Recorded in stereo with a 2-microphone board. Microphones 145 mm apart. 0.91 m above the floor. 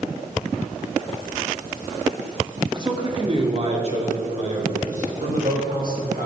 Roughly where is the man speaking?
Right.